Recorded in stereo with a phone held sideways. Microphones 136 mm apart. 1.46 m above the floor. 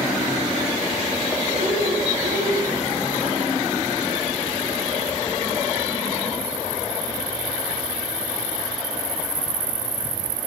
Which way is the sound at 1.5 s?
70° right (ahead or behind).